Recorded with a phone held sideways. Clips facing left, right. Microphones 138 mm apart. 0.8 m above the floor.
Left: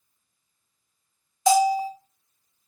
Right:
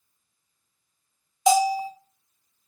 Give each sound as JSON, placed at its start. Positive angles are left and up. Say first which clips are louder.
{"t": 1.5, "sound": "a bell", "louder": "left 1 dB", "side_deg": -20, "distance_m": 0.8}